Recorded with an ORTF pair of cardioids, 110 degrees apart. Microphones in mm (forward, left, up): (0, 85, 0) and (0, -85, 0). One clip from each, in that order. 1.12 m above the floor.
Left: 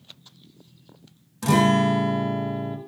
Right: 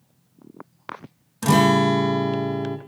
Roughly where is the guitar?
Ahead.